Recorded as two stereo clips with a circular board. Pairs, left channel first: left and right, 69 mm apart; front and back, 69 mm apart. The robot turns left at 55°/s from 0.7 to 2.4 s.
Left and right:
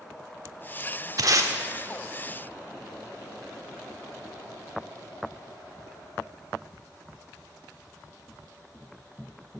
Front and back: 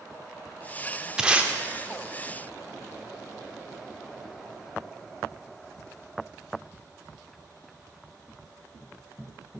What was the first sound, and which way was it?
Tape being pulled, 100° right.